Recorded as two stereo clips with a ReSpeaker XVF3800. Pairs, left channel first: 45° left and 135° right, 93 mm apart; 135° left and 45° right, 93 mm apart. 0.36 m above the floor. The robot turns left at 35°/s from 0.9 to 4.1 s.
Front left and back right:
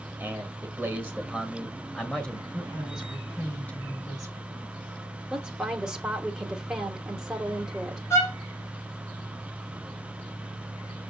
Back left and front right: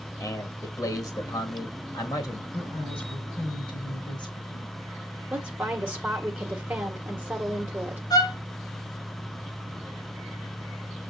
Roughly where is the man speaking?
Behind.